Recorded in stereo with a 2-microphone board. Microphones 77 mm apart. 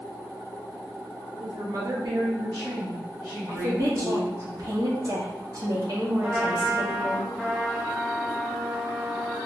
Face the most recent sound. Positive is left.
turn(degrees=-5)  # may be behind; listen again after turning